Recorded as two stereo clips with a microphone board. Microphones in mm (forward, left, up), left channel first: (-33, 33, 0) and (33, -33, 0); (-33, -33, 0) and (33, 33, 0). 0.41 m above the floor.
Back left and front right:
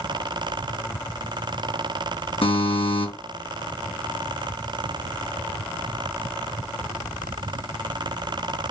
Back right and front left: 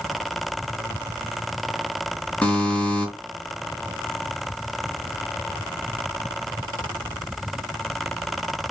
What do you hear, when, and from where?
2.4 s a buzzer: 150° left, 5.5 m